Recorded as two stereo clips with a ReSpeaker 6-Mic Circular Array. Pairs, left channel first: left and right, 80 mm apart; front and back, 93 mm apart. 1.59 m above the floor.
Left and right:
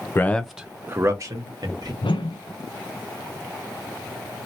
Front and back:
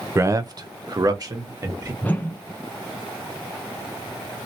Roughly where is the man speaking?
Behind left.